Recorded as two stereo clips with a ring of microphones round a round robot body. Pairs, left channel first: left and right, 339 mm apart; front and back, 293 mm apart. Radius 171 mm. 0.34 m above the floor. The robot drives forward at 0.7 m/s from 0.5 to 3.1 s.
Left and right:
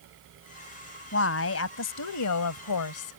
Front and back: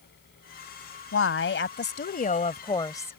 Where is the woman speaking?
40° left; by 3.1 s 80° left.